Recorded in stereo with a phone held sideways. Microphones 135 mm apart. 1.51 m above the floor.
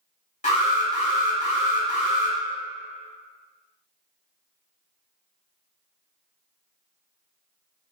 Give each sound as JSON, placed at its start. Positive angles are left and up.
{"t": 0.4, "sound": "an alarm", "side_deg": 60, "distance_m": 2.0}